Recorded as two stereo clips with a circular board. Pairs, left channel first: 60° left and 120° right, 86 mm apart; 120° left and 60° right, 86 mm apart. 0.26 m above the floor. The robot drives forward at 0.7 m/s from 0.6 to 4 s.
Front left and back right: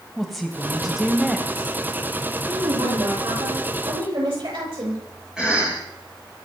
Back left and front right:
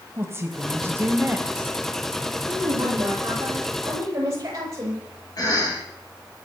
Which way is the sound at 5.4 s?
160° left.